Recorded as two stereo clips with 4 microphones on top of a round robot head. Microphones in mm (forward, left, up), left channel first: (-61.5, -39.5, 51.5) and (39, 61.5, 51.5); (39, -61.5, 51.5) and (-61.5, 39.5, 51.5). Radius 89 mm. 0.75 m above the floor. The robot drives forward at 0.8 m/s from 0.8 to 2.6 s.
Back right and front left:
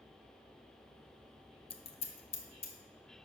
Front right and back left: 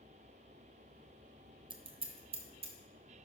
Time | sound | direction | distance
1.7 | scissors | straight behind | 0.7 m